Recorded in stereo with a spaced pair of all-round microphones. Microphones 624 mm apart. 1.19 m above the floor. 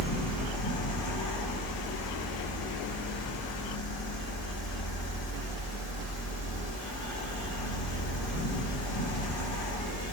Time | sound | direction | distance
0.0 | a fan | 55° left (ahead or behind) | 0.7 m